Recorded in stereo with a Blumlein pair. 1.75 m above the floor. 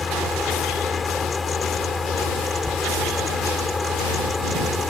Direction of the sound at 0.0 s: 15° left.